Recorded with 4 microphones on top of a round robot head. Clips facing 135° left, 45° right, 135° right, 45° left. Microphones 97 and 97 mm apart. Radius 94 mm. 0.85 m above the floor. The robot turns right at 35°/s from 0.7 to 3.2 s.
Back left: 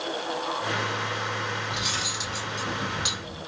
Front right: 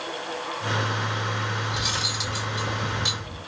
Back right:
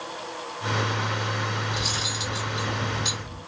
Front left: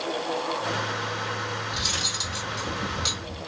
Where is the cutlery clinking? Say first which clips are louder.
Front right 2 dB, back right 2 dB; 10° left, 1.8 m; by 3.4 s 65° left, 1.8 m.